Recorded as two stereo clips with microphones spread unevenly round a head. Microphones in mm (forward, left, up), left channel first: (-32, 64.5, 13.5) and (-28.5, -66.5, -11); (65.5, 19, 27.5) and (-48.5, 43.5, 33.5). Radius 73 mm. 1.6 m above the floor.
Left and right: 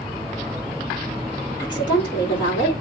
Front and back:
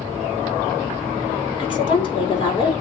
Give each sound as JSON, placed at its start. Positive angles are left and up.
{"t": 1.6, "sound": "a woman speaking", "azimuth_deg": 30, "distance_m": 6.0}